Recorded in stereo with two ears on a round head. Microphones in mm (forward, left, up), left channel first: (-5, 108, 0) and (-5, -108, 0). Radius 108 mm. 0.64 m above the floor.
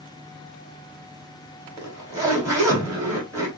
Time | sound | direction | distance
1.8 | a zipper | 15° right (ahead or behind) | 2.5 m